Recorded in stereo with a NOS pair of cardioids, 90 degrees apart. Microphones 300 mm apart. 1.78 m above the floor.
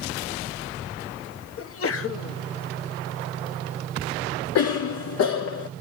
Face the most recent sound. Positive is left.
turn(degrees=55)